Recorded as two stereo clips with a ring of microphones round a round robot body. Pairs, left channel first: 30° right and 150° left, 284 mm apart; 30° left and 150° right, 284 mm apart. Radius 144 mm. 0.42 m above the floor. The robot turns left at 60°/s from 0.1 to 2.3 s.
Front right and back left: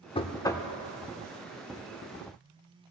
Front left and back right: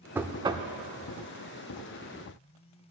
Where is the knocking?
75° right, 0.6 m; by 0.7 s 110° right, 0.6 m.